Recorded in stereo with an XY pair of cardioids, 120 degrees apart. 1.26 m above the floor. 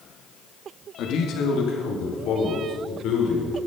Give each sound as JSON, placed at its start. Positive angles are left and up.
{"t": 1.0, "sound": "a man speaking", "azimuth_deg": 70, "distance_m": 2.0}